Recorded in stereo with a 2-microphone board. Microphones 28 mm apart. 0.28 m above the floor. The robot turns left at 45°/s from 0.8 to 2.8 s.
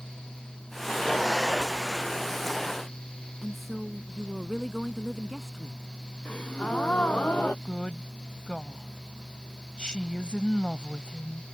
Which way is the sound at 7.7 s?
30° left (ahead or behind).